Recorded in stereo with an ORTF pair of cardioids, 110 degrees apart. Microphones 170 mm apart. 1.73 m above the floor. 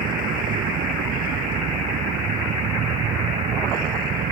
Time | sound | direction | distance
0.0 | a vehicle | 60° right | ?